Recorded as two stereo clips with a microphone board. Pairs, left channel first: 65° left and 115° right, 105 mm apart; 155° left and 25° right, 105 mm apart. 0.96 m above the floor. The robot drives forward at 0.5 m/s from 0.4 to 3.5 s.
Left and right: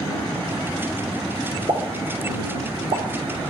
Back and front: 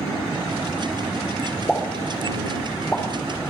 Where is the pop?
115° right, 2.5 m; by 3.5 s 130° right, 3 m.